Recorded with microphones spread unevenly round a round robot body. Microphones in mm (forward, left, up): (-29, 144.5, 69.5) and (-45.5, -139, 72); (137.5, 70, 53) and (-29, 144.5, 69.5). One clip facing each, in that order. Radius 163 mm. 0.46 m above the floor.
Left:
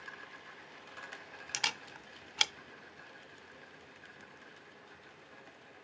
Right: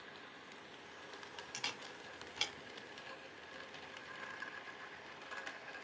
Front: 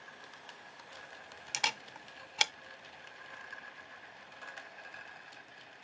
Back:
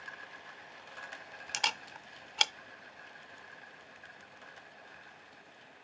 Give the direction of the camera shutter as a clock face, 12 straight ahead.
10 o'clock.